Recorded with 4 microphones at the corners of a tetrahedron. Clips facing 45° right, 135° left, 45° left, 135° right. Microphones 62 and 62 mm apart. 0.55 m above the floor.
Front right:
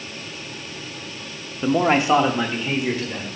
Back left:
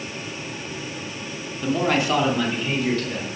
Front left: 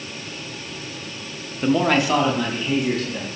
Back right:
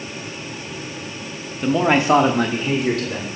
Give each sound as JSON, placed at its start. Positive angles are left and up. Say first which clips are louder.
{"t": 1.6, "sound": "a man speaking", "louder": "front right 3 dB, back right 2 dB", "azimuth_deg": -30, "distance_m": 0.7}